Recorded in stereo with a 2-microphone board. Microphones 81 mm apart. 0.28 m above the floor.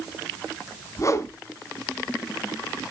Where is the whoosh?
40° left (ahead or behind), 1.0 m.